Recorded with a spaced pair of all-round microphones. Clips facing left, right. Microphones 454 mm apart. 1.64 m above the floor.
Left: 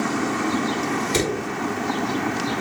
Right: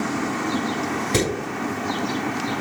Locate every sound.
1.1 s hammering: 75° right (ahead or behind), 6 m